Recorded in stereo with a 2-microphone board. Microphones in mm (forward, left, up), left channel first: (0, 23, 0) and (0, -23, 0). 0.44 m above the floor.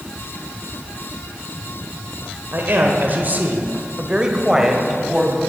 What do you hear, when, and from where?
2.5 s a man speaking: 50° right (ahead or behind), 1.6 m; by 5.4 s 5° right (ahead or behind), 2.5 m